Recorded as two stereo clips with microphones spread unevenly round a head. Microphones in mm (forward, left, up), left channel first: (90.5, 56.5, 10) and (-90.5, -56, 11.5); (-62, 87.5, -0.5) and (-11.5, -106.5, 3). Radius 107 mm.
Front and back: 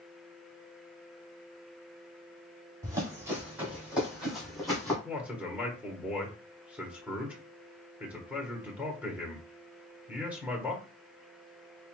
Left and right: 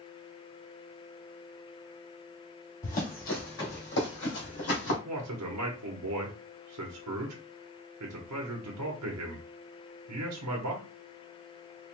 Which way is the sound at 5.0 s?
65° right.